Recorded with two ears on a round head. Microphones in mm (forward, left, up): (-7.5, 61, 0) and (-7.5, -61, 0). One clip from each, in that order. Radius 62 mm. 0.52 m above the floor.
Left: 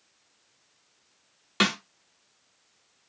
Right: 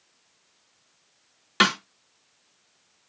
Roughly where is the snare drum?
Centre.